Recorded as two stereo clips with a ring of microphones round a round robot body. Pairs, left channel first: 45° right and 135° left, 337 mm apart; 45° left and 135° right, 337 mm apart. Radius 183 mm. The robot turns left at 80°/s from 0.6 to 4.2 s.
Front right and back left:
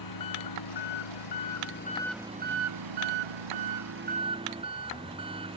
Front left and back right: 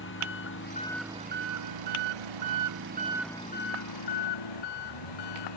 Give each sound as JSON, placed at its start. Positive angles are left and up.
{"t": 0.0, "sound": "an engine running", "azimuth_deg": -15}